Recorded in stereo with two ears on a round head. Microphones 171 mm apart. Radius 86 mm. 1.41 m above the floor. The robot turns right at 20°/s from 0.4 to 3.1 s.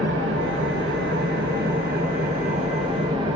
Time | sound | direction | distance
0.0 | an engine running | 85° right | 0.9 m